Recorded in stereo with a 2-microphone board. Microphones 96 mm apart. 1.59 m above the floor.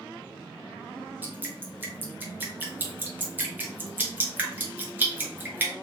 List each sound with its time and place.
1.2 s dripping: 20° right (ahead or behind), 0.9 m